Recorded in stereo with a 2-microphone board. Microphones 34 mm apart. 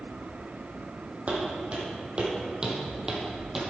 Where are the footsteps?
40° right (ahead or behind), 2 m; by 3.6 s 10° right (ahead or behind), 1.6 m.